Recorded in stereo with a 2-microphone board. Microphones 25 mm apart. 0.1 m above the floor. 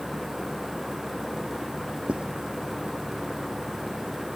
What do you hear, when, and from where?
2.1 s writing: 55° right (ahead or behind)